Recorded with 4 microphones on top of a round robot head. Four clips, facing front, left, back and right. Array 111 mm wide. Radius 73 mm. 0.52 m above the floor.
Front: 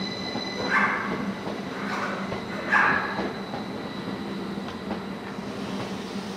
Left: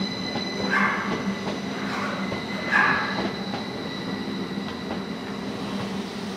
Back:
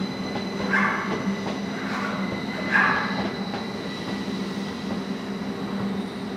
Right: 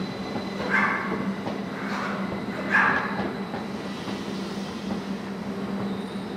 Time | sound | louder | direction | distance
0.6 | a zipper | left 1 dB, even | 5° left | 1.6 m